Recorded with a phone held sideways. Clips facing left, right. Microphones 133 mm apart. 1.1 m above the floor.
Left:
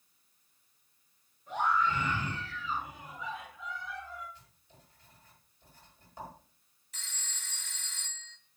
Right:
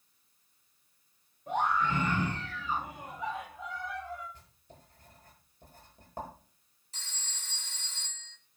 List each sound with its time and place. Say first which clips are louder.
1.5 s a scream: right 1 dB; 60° right (ahead or behind), 7.5 m; by 4.2 s 50° right (ahead or behind), 7.5 m
4.3 s writing: right 4 dB; 50° right (ahead or behind), 10 m
6.9 s a phone ringing: even; 30° right (ahead or behind), 2.5 m